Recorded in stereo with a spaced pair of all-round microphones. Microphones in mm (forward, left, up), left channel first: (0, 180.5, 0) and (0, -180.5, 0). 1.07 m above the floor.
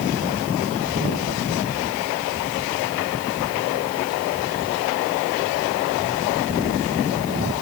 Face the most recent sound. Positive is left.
No sound to turn to.